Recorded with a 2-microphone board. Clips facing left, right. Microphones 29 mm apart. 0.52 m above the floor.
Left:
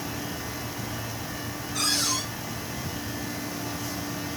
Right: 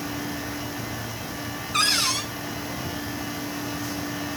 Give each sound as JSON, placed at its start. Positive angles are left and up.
{"t": 1.7, "sound": "a cupboard door", "side_deg": -75, "distance_m": 4.0}